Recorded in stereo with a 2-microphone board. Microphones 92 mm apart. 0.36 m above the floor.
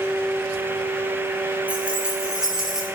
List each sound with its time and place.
1.7 s keys jangling: 15° right (ahead or behind), 4.5 m; by 2.9 s 5° right (ahead or behind), 5.5 m